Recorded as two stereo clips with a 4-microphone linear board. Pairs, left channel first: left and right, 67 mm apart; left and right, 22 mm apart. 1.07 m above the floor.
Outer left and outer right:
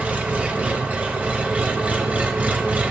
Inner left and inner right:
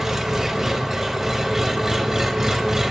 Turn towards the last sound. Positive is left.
turn(degrees=-20)  # may be behind; listen again after turning